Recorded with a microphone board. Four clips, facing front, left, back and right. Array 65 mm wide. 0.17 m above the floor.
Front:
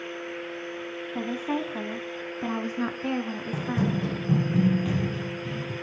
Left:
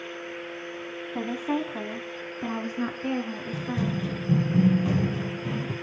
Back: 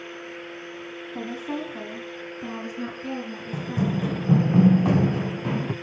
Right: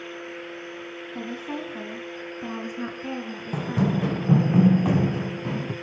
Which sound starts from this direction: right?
Running footsteps, at 3.5 s.